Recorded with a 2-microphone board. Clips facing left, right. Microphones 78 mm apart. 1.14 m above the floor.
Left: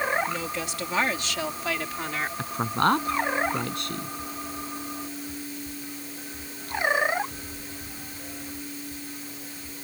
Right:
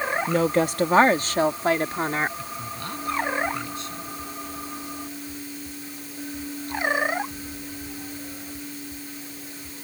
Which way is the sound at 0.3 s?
55° right (ahead or behind).